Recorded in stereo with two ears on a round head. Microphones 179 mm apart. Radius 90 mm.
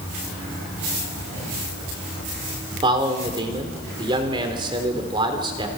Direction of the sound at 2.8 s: 25° right (ahead or behind).